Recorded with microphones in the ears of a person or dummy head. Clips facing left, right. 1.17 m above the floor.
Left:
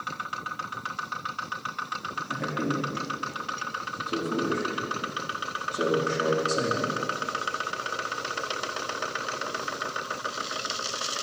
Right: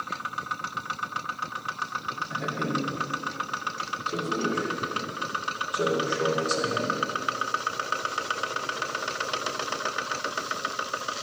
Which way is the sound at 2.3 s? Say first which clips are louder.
Left 1 dB; 55° left (ahead or behind).